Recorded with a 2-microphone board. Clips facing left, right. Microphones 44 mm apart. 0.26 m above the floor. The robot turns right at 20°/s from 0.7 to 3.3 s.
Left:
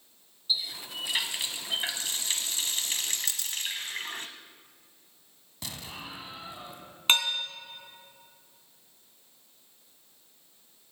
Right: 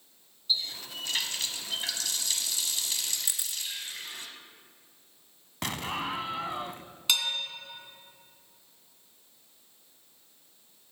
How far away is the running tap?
About 1.2 m.